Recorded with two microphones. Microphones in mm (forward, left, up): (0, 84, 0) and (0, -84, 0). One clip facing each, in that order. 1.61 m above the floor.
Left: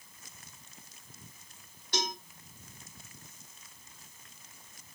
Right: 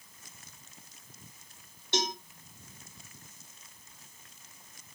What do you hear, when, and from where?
1.9 s a cowbell: 25° right (ahead or behind), 1.2 m